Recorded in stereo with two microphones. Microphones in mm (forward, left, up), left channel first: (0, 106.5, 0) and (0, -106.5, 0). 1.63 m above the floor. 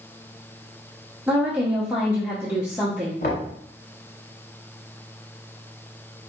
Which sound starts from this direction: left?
Knocking, at 3.2 s.